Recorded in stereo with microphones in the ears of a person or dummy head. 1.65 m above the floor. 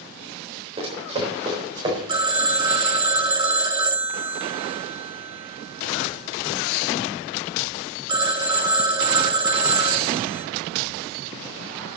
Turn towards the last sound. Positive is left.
turn(degrees=-25)  # may be behind; listen again after turning